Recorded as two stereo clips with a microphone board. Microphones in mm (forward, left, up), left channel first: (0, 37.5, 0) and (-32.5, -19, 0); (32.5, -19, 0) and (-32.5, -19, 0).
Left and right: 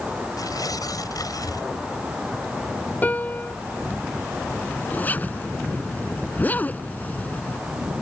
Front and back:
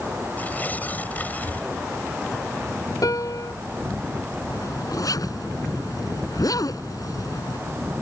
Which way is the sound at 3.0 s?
Straight ahead.